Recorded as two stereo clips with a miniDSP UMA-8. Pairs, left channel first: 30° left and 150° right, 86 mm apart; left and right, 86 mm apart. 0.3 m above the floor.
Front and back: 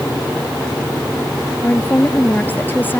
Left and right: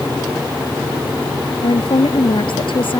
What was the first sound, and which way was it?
A woman speaking, 95° left.